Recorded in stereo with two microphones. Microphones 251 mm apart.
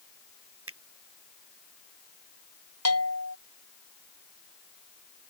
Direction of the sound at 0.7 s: 65° right (ahead or behind).